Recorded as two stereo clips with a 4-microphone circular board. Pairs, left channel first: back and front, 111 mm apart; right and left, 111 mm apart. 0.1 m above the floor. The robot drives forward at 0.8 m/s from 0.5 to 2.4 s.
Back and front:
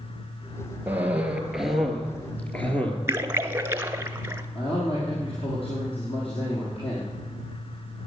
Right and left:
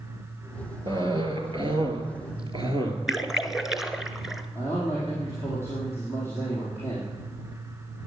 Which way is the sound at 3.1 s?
10° left.